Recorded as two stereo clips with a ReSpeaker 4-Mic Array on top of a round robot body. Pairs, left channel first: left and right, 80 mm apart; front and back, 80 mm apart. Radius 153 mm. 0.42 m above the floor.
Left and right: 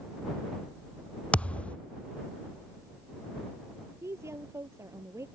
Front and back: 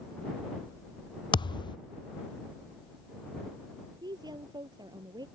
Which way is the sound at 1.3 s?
15° left.